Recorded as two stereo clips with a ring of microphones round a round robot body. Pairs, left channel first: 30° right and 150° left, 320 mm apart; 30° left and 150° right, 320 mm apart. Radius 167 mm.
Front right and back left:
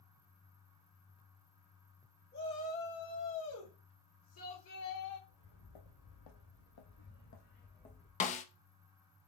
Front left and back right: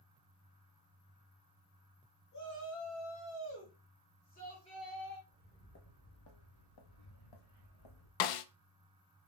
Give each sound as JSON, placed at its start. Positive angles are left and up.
{"t": 2.3, "sound": "a shout", "azimuth_deg": 20, "distance_m": 2.5}
{"t": 5.3, "sound": "footsteps", "azimuth_deg": -35, "distance_m": 1.6}
{"t": 8.2, "sound": "a snare drum", "azimuth_deg": 40, "distance_m": 0.5}